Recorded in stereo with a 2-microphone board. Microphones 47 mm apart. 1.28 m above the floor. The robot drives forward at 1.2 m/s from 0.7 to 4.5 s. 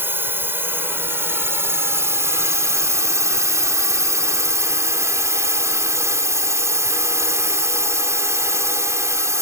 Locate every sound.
0.0 s a drone: 50° right (ahead or behind); by 9.4 s 75° right (ahead or behind)